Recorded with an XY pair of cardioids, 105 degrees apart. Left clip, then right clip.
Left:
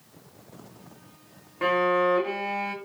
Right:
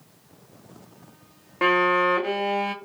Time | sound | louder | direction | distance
1.6 | a violin | right 3 dB | 50° right | 0.7 m